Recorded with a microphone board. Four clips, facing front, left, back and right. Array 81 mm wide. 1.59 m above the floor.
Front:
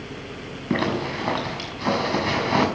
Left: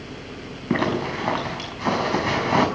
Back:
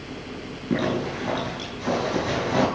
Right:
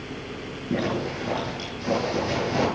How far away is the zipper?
About 6.5 m.